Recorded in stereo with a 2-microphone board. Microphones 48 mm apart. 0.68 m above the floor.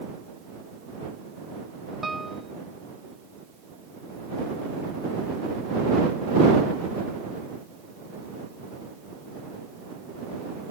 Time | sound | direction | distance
2.0 | a piano | centre (ahead or behind) | ?